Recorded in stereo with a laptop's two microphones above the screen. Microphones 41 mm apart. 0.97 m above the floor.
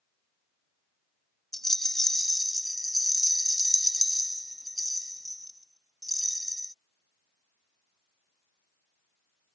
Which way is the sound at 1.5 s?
10° left (ahead or behind).